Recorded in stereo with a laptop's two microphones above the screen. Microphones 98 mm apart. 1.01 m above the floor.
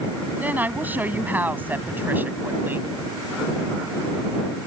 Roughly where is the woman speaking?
Centre.